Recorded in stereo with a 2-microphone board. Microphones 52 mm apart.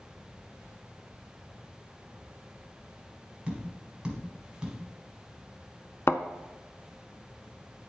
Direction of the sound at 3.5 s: 15° right (ahead or behind).